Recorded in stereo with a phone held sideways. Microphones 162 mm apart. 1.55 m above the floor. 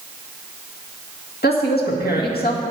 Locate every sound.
1.4 s a woman speaking: 80° left, 1.7 m